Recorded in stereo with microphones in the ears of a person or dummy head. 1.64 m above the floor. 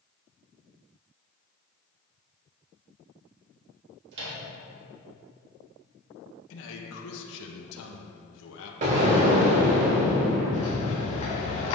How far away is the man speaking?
About 1.3 m.